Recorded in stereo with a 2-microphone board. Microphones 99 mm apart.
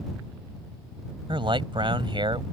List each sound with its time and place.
1.3 s a man speaking: 60° right (ahead or behind)